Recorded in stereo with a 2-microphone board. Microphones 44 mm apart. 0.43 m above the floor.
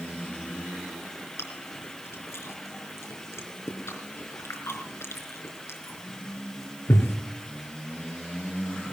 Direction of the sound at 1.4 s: 80° left.